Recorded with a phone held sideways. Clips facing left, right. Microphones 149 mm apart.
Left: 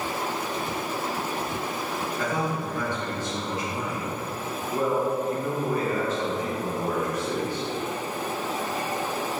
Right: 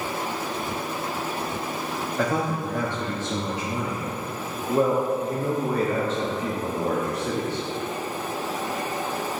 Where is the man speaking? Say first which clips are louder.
Right 4 dB; 75° right (ahead or behind), 1.1 m.